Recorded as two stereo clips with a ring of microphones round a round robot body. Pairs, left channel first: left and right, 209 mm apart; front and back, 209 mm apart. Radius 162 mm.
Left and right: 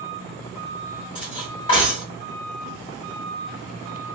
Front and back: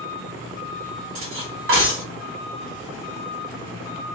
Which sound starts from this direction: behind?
Cutlery clinking, at 1.1 s.